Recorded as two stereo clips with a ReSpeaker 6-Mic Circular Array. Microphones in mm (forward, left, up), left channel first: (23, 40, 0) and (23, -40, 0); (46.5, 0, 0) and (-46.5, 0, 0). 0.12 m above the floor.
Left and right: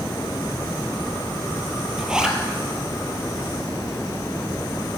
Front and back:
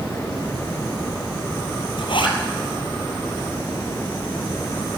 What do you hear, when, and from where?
2.0 s a zipper: 10° right, 1.7 m